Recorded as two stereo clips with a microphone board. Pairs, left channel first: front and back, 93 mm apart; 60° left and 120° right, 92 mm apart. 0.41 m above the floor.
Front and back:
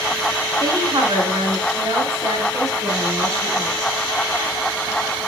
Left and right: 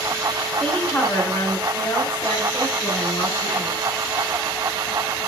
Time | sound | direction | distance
0.6 | a woman speaking | 135° left | 4 m